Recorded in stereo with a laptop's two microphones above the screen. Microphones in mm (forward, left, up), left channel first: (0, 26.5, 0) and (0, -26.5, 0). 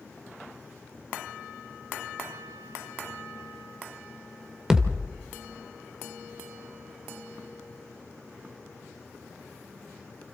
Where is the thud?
15° right (ahead or behind), 1.9 m.